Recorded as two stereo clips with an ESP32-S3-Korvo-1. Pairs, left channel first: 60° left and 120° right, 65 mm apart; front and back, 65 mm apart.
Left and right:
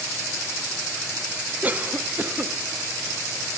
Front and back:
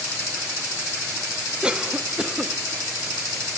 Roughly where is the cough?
Behind right.